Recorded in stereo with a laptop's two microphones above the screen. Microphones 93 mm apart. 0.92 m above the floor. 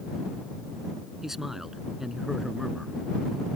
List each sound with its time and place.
1.2 s a man speaking: 5° right (ahead or behind)